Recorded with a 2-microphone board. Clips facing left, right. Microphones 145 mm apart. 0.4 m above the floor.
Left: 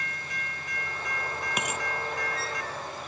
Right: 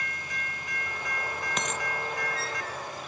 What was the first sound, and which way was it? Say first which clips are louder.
A dropped coin: left 1 dB; 10° left (ahead or behind).